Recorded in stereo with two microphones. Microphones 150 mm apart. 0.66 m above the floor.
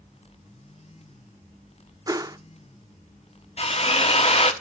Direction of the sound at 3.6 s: 45° left (ahead or behind).